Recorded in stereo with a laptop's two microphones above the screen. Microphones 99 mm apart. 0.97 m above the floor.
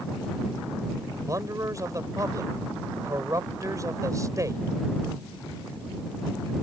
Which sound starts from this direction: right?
A man speaking, at 1.3 s.